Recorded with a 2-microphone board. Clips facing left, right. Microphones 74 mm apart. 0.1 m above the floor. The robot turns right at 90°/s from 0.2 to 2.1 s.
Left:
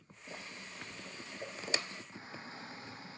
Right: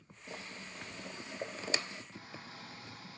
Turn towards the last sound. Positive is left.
turn(degrees=30)  # may be behind; listen again after turning